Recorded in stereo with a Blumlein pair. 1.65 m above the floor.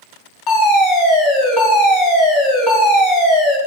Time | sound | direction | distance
0.5 | a fire alarm | 40° left | 5.5 m